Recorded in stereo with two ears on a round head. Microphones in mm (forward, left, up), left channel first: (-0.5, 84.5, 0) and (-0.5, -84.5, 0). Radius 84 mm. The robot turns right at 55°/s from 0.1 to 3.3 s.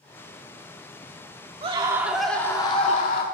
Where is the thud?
I don't hear a thud.